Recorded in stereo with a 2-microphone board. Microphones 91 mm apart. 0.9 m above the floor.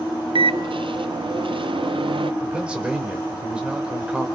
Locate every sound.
0.3 s a microwave: 70° right (ahead or behind), 0.6 m
2.4 s a man speaking: 10° right (ahead or behind), 3.5 m